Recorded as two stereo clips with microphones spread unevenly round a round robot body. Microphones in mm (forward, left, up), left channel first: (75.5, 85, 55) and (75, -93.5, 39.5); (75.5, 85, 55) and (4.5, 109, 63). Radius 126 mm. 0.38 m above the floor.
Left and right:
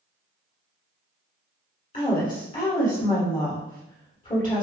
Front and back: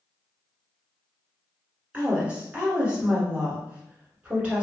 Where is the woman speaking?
90° left, 1.5 m.